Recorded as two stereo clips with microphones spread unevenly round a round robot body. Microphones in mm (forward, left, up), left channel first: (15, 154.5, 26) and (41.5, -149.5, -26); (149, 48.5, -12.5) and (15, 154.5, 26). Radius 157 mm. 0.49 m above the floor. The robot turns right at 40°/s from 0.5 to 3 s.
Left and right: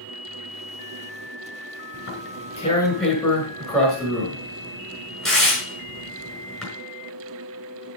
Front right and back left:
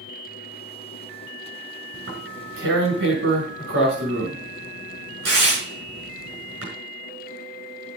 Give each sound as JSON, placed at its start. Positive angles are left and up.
{"t": 1.9, "sound": "tearing paper", "azimuth_deg": 145, "distance_m": 5.5}